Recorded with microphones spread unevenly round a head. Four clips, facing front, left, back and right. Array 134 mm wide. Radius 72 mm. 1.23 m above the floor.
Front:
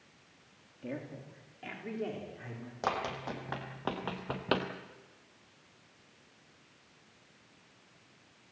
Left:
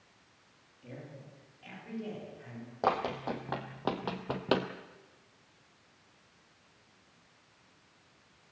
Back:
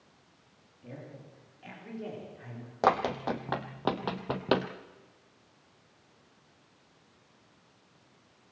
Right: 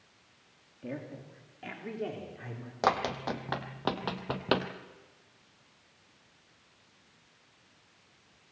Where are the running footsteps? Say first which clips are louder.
Right 2 dB, back 8 dB; 175° left, 2 m; by 4.7 s 160° left, 1.4 m.